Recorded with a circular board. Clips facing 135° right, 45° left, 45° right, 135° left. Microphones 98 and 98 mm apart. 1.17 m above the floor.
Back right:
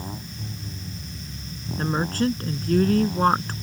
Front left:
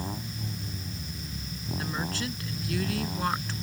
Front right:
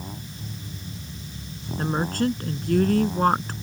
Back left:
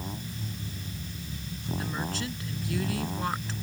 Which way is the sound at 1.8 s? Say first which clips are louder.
Back right 11 dB, front right 11 dB; 85° right.